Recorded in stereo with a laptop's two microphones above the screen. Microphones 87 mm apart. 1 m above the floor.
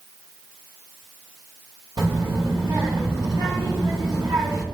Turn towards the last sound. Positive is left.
turn(degrees=-50)  # may be behind; listen again after turning